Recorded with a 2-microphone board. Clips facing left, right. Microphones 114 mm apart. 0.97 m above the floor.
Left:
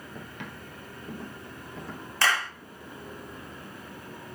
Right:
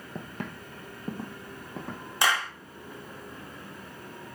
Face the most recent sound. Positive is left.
turn(degrees=-15)  # may be behind; listen again after turning